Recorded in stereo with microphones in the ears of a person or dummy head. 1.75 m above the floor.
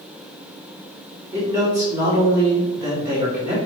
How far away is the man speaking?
About 1.8 m.